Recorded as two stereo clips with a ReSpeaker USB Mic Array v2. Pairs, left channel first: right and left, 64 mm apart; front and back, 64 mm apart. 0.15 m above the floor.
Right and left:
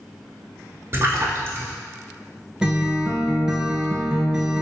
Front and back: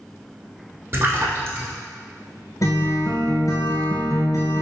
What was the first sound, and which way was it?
A splash, 135° left.